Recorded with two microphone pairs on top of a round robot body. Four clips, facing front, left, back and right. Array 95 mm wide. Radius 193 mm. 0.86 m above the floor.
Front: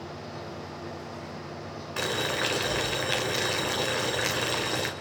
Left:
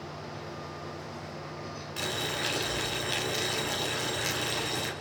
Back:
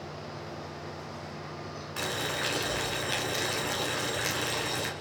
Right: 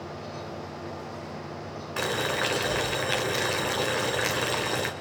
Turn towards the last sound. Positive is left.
turn(degrees=-65)